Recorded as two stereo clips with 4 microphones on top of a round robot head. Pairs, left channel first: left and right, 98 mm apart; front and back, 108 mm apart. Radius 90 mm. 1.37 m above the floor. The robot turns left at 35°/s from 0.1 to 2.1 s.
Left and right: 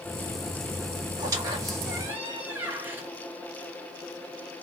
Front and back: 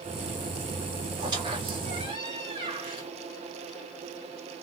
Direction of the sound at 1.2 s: 120° right.